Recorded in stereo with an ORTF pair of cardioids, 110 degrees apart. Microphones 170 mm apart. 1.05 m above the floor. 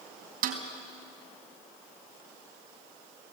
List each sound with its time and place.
0.4 s a snare drum: 55° right, 3.5 m